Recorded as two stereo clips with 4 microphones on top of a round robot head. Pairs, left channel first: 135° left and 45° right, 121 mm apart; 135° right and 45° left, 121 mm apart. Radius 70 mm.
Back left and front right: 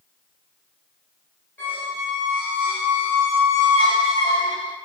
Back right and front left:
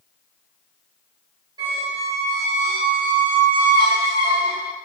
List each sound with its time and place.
1.6 s a squeak: 65° left, 1.5 m